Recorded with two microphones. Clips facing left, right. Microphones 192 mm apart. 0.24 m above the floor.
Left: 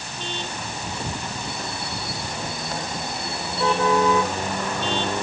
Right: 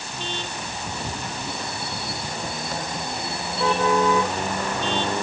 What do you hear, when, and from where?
Only background noise.